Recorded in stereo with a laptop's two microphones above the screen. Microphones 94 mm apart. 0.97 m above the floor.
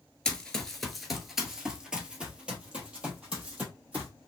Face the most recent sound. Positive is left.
turn(degrees=-15)  # may be behind; listen again after turning